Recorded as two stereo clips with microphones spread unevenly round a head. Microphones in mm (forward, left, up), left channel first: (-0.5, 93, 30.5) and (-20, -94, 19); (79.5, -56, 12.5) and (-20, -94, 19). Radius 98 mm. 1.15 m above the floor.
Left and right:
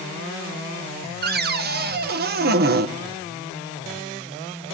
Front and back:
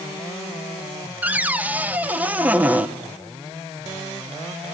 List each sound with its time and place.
1.2 s a cupboard door: 85° right, 0.9 m